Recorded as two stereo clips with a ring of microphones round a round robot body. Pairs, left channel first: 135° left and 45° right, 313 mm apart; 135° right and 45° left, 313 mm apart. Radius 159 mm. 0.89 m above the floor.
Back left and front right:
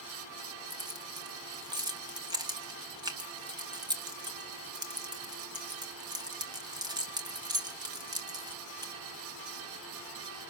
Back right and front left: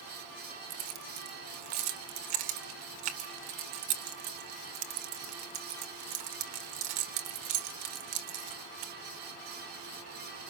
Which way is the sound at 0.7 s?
35° left.